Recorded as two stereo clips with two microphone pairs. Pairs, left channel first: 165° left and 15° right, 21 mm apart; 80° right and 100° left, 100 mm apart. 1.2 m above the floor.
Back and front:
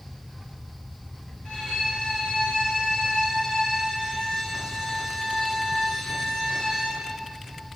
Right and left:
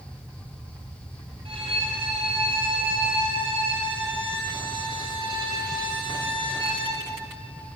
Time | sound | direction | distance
1.4 | a violin | 125° left | 1.3 m